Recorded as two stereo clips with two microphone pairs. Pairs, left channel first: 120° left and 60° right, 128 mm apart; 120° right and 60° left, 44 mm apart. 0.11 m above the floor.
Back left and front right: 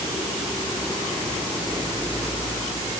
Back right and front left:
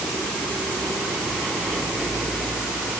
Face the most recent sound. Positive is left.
No sound to turn to.